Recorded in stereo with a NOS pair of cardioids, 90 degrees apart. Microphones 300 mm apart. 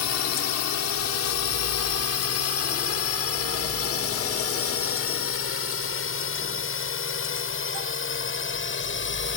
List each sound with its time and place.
0.0 s a drone: 65° left; by 9.4 s 40° left